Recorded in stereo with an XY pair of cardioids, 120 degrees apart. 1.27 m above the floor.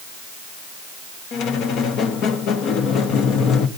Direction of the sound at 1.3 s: 70° left.